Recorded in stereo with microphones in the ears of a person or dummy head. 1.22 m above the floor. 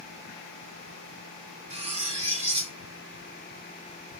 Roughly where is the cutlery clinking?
Right.